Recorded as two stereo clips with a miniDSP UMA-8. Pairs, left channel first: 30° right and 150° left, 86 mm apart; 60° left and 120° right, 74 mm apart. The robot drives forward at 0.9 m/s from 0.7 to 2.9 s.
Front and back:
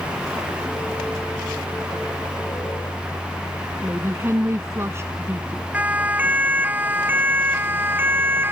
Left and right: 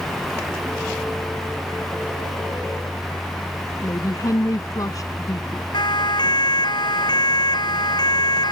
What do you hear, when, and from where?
3.8 s a woman speaking: 95° left
5.7 s a siren: 80° left; by 8.5 s 85° left